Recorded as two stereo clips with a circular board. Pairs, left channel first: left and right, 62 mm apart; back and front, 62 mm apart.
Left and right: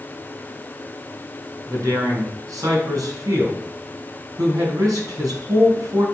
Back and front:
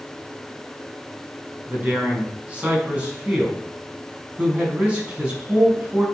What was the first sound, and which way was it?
A man speaking, 65° right.